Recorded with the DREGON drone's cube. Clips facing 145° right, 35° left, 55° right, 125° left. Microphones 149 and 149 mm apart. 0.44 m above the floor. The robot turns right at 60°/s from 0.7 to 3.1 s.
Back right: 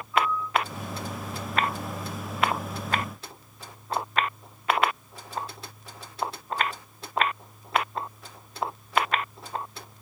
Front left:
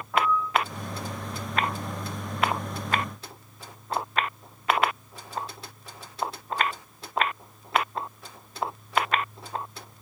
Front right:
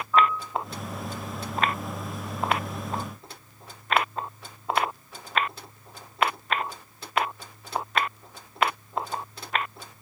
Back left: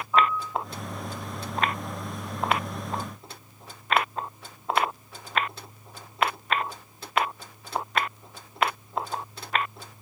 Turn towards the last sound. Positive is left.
turn(degrees=-165)